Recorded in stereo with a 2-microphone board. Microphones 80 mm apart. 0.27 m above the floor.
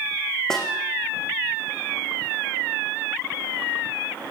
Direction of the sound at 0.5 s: 5° left (ahead or behind).